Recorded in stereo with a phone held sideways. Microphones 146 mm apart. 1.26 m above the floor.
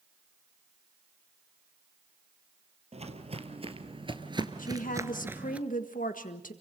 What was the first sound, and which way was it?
Footsteps, 50° right (ahead or behind).